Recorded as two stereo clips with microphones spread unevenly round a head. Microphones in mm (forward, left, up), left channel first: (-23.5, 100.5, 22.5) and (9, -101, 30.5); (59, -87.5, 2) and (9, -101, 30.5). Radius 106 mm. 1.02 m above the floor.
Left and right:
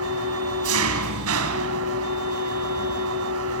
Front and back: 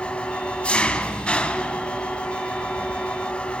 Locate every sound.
0.0 s an engine running: 60° right, 3 m